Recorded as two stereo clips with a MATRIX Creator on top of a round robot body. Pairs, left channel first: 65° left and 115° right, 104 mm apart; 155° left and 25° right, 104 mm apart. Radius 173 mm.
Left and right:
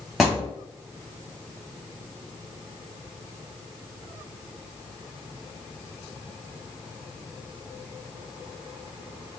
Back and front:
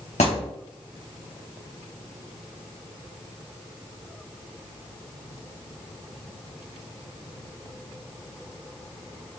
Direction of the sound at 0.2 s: 160° left.